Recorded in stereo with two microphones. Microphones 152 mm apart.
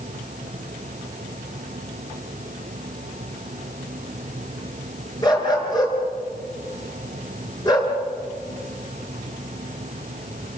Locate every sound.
5.2 s a dog barking: 30° left (ahead or behind), 6 m